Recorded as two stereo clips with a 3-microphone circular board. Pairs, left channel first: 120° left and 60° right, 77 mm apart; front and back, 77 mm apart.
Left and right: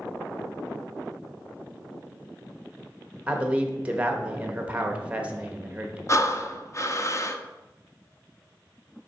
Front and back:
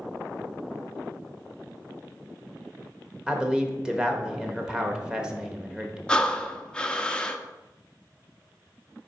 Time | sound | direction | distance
3.3 | a man speaking | 110° right | 1.0 m
6.1 | breathing | 75° left | 0.6 m